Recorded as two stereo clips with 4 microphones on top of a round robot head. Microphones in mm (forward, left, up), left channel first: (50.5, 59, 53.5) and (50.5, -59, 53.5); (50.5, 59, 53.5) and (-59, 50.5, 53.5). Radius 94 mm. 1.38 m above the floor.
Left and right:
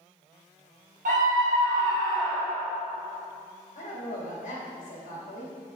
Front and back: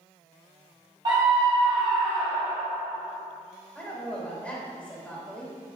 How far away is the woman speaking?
About 3 m.